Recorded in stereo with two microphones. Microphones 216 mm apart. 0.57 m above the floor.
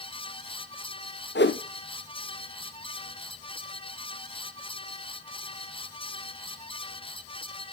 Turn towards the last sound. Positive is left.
turn(degrees=55)  # may be behind; listen again after turning